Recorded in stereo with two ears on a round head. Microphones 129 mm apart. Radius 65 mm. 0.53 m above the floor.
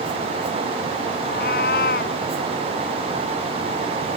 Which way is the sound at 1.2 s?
70° left (ahead or behind).